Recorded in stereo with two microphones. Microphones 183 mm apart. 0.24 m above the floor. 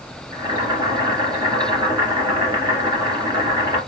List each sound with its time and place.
0.3 s boiling: 25° right (ahead or behind), 1.7 m